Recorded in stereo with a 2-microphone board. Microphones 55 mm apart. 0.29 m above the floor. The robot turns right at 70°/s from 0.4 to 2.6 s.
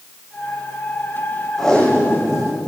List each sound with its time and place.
1.6 s tape being pulled: 5° left, 6 m; by 2.6 s 75° left, 6 m